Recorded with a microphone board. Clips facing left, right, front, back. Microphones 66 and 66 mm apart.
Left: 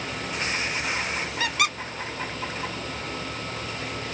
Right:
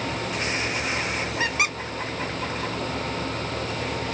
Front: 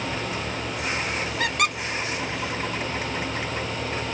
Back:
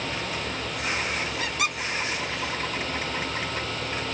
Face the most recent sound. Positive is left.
turn(degrees=-25)